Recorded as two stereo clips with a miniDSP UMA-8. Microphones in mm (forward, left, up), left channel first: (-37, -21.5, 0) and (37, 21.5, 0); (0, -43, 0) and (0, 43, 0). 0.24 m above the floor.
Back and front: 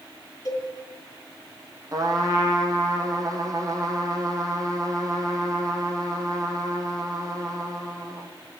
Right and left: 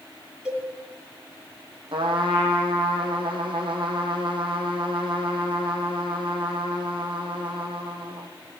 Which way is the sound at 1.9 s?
75° left.